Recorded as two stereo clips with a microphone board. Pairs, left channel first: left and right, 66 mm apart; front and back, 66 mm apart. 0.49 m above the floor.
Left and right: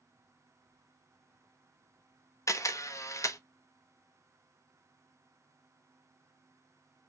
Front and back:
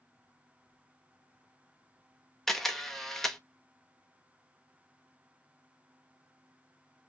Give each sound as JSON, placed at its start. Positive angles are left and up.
{"t": 2.5, "sound": "a camera shutter", "azimuth_deg": 85, "distance_m": 0.8}